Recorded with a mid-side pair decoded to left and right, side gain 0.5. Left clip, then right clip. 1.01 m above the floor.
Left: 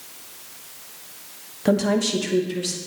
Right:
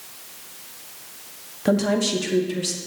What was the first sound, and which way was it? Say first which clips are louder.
A woman speaking: even; 5° left.